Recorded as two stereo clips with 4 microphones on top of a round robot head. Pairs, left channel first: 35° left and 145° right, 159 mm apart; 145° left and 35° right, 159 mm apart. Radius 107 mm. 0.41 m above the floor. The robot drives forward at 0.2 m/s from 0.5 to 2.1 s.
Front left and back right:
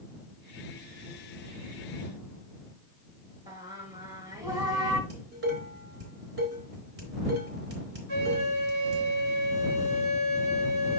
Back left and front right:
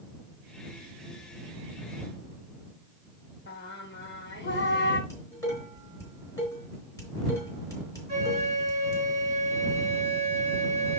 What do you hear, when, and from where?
3.5 s singing: 145° left, 1.6 m
5.1 s dishes clattering: 145° right, 3.5 m
8.1 s a flute: 145° right, 6 m